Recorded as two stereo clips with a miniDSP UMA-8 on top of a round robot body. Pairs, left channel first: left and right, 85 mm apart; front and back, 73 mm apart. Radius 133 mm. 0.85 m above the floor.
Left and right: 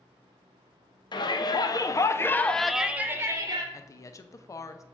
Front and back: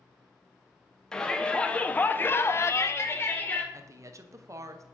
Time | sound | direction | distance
1.1 | a shout | 80° left | 1.1 m
3.7 | a woman speaking | 140° left | 0.6 m